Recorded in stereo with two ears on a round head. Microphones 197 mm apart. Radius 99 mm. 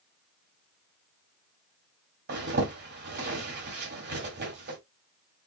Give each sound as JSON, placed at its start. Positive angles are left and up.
{"t": 2.3, "sound": "a zipper", "side_deg": -50, "distance_m": 1.6}